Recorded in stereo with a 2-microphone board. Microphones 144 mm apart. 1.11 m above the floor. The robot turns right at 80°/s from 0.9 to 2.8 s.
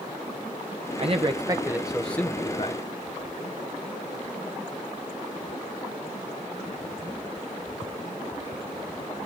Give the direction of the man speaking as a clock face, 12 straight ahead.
3 o'clock.